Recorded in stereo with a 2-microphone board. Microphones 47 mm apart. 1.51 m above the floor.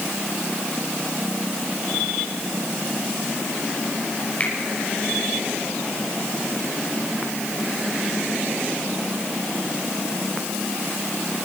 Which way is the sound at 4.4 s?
30° left (ahead or behind).